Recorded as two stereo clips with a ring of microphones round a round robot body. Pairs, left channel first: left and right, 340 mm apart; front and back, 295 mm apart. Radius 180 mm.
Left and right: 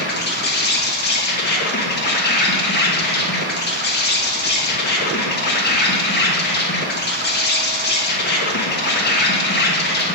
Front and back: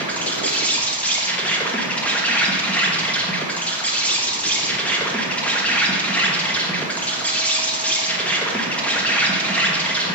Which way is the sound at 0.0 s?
80° left.